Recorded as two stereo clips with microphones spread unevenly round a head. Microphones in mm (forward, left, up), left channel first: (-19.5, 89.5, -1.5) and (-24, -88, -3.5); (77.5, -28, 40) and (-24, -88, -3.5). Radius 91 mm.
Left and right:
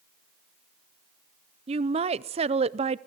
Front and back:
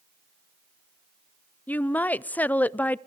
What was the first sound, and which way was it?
A woman speaking, 70° right.